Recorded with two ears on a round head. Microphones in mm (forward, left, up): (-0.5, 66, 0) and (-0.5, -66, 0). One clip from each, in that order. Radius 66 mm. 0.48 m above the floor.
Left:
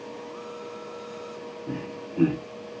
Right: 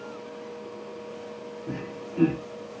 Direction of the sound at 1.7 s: 10° left (ahead or behind).